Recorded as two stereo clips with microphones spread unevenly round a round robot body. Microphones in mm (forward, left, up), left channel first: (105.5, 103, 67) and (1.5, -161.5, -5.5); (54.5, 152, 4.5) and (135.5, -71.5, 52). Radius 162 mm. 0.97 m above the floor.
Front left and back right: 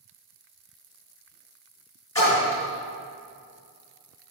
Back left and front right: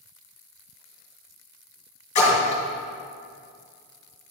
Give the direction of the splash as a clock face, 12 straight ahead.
7 o'clock.